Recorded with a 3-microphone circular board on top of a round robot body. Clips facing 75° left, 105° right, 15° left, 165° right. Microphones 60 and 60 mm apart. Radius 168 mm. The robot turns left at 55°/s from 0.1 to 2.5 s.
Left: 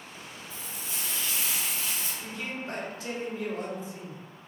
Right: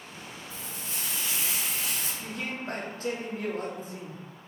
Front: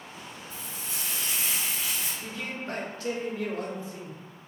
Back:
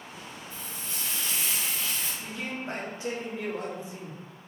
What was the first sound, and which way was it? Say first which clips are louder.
Frying: left 1 dB, front 1 dB; 10° left.